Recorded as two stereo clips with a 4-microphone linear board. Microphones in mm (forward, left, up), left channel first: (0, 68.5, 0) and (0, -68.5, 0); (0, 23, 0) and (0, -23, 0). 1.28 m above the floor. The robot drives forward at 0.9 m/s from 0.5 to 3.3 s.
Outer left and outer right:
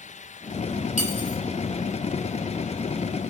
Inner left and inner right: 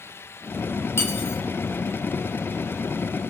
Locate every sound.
1.0 s cutlery clinking: 60° left (ahead or behind), 3 m; by 1.4 s 65° left (ahead or behind), 3 m